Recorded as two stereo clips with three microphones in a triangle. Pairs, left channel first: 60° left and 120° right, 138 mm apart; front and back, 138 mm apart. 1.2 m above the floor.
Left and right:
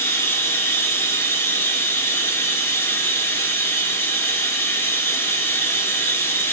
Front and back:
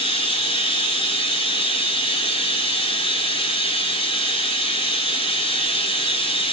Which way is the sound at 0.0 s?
5° right.